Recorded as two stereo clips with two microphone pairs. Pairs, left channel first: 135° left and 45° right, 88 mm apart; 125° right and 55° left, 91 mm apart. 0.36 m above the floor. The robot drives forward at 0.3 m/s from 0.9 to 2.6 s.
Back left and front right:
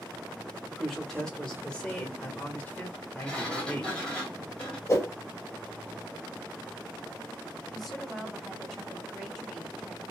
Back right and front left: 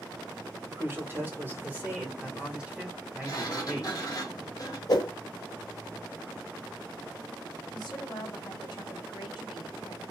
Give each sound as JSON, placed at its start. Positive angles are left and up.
{"t": 0.7, "sound": "a man speaking", "azimuth_deg": 55, "distance_m": 1.3}
{"t": 3.2, "sound": "a sliding door", "azimuth_deg": -150, "distance_m": 1.5}
{"t": 4.9, "sound": "a whoosh", "azimuth_deg": -170, "distance_m": 1.6}
{"t": 7.7, "sound": "a woman speaking", "azimuth_deg": -135, "distance_m": 1.8}